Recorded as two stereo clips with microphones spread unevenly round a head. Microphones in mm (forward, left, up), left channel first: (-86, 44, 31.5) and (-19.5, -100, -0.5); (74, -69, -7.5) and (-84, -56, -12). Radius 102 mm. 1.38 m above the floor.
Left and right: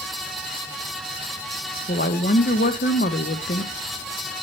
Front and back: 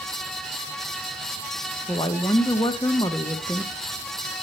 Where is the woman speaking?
70° left, 0.7 m.